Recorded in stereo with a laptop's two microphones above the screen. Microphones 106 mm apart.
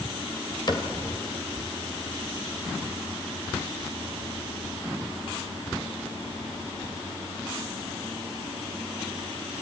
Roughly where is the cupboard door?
Left.